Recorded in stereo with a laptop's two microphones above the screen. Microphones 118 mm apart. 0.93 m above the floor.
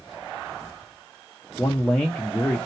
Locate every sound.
1.6 s a man speaking: 10° left (ahead or behind), 0.6 m